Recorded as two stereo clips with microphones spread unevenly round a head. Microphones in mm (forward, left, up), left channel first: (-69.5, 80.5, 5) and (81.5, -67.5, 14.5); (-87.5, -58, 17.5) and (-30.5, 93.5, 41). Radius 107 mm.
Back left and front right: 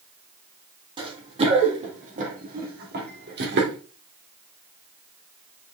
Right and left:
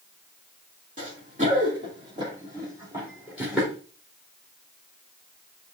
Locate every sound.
1.0 s running footsteps: 20° left, 2.5 m; by 3.8 s 15° right, 2.5 m